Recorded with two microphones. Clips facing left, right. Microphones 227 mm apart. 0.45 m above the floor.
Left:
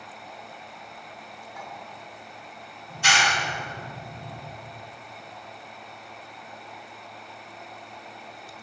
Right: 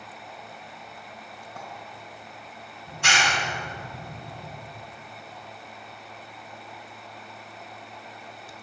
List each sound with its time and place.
1.6 s a clink: 70° right (ahead or behind), 2.0 m
2.9 s a clap: 60° right (ahead or behind), 2.0 m